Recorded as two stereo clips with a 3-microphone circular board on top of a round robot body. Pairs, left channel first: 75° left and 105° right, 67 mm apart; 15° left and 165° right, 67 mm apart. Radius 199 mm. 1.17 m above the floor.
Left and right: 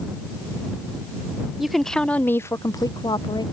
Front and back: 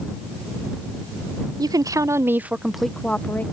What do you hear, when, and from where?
1.6 s a woman speaking: 170° left; by 3.4 s 75° left